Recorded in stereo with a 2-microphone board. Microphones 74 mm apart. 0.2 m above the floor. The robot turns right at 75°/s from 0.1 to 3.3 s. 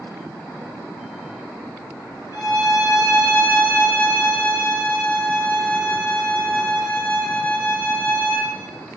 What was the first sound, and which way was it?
A violin, 80° left.